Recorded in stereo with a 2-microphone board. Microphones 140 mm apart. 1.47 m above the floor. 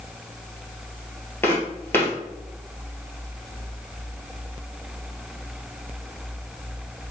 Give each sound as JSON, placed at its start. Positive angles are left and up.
{"t": 1.4, "sound": "footsteps", "side_deg": 15, "distance_m": 1.7}